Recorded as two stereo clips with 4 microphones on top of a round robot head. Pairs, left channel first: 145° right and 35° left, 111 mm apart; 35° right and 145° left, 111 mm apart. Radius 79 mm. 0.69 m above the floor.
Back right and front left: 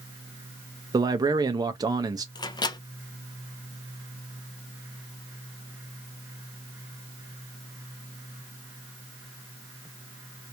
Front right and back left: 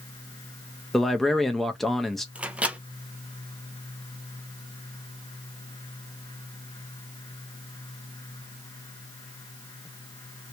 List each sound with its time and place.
0.9 s a man speaking: 50° left, 0.5 m
2.4 s a microwave: 140° right, 0.8 m